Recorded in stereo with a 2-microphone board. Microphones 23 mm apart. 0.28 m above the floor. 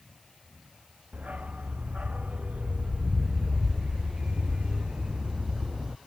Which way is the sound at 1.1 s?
80° right.